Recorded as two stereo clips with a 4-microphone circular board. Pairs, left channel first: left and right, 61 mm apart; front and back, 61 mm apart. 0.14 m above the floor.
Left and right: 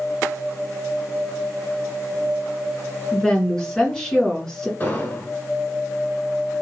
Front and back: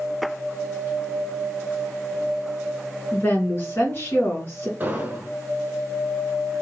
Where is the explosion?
135° left, 1.2 m.